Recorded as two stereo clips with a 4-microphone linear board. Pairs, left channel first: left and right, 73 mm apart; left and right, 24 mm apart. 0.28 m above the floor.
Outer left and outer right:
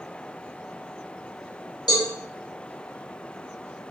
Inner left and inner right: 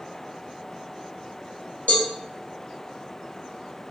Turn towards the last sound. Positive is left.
turn(degrees=70)  # may be behind; listen again after turning